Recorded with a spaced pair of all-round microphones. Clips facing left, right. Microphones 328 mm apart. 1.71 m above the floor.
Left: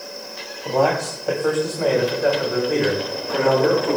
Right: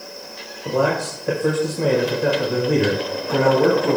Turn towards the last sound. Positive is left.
turn(degrees=-60)  # may be behind; listen again after turning